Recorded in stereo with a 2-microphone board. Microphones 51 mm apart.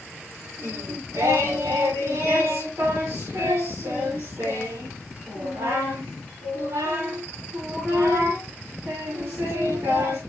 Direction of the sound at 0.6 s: 70° right (ahead or behind).